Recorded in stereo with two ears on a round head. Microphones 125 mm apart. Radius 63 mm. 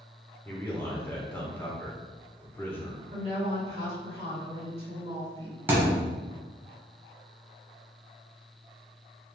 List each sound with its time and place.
0.5 s a man speaking: 15° left (ahead or behind), 0.8 m
3.1 s a woman speaking: 40° right (ahead or behind), 1.7 m
5.7 s a thud: 15° right (ahead or behind), 1.0 m